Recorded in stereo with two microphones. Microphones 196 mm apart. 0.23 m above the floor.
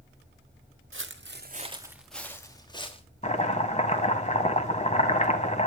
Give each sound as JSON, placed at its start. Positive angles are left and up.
{"t": 0.9, "sound": "footsteps", "side_deg": -80, "distance_m": 1.3}
{"t": 3.2, "sound": "chopping", "side_deg": 35, "distance_m": 1.4}